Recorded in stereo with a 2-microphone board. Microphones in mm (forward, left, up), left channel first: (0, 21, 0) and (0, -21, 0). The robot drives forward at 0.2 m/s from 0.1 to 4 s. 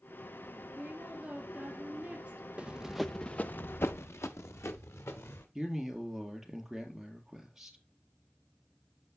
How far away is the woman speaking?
About 2.0 m.